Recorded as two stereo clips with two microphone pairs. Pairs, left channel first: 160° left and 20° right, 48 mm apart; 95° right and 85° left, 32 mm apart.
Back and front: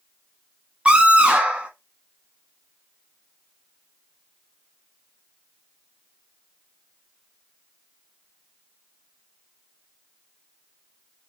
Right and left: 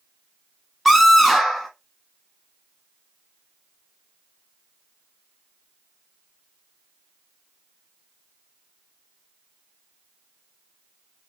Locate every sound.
0.8 s a scream: 10° right, 1.3 m